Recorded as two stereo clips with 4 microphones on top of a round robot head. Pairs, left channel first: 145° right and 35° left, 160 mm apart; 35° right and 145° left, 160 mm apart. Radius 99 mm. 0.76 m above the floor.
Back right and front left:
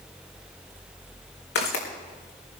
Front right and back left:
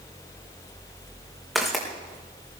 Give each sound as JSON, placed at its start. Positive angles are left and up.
{"t": 1.6, "sound": "footsteps", "azimuth_deg": -125, "distance_m": 4.0}